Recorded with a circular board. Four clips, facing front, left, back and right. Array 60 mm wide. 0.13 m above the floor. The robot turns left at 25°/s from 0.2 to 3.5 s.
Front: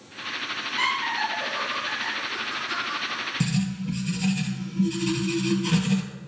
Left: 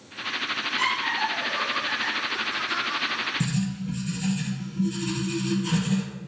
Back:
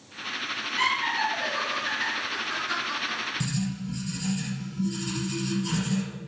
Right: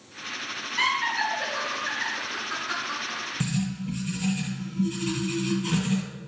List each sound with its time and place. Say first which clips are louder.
0.8 s laughter: right 2 dB, even; 100° right, 2.5 m; by 3.2 s 160° right, 2.5 m
3.4 s writing: left 1 dB, front 4 dB; 10° right, 1.7 m; by 6.0 s 15° right, 1.7 m